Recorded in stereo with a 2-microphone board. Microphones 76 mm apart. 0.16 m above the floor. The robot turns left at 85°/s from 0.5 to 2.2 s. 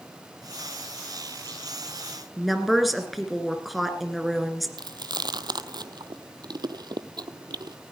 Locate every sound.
2.4 s a woman speaking: centre (ahead or behind), 2.0 m
4.8 s chewing: 75° right (ahead or behind), 0.7 m